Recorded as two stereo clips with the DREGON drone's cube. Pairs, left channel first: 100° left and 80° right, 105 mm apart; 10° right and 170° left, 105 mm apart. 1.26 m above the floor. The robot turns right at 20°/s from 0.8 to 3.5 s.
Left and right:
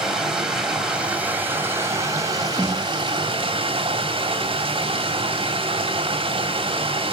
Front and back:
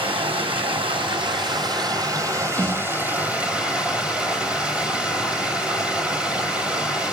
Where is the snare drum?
155° right, 7 m; by 2.9 s 145° right, 7 m.